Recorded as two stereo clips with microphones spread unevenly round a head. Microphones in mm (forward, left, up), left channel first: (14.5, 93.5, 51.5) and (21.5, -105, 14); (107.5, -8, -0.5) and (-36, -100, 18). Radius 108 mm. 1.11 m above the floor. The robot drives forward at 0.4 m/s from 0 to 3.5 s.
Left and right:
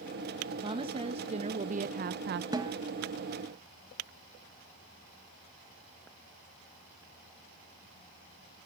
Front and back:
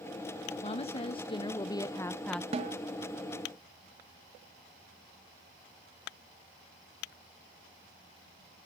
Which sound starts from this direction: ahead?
A woman speaking, at 0.6 s.